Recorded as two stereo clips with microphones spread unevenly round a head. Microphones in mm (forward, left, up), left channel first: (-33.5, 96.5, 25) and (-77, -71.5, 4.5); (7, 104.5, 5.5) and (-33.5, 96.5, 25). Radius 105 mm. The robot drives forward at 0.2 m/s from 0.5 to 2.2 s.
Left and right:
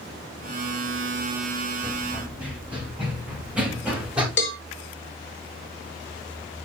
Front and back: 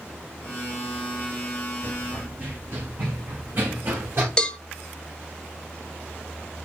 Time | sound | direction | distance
1.8 | running footsteps | 170° left | 3 m
4.4 | a cowbell | 70° left | 1.2 m